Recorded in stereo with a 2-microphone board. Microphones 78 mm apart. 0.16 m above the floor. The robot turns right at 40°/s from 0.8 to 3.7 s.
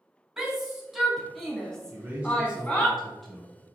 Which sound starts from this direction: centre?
A shout, at 0.4 s.